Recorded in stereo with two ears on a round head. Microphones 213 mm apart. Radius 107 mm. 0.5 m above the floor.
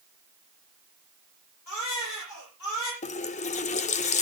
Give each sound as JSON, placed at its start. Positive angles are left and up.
{"t": 1.7, "sound": "a baby crying", "side_deg": 85, "distance_m": 7.5}
{"t": 3.0, "sound": "a running tap", "side_deg": 30, "distance_m": 0.6}